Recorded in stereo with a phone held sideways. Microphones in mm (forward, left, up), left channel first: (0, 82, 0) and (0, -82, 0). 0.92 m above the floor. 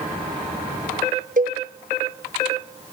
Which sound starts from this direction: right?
A cowbell, at 1.4 s.